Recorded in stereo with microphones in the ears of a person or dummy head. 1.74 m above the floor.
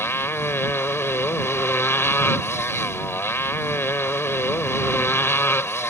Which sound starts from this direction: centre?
A motorcycle, at 0.0 s.